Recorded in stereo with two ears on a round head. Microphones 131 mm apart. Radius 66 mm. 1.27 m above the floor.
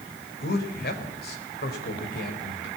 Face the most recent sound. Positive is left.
turn(degrees=70)  # may be behind; listen again after turning